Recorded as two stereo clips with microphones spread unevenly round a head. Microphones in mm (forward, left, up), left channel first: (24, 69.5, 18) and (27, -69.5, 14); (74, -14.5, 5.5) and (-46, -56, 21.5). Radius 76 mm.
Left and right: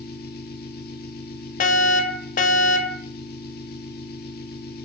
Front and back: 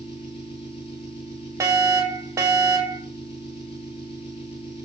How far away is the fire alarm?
About 6 m.